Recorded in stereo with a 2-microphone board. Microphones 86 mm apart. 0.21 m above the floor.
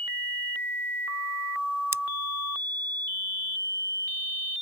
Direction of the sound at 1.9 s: 30° right (ahead or behind).